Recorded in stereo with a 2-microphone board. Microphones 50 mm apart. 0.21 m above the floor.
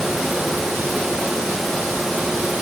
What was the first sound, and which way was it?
Only background noise.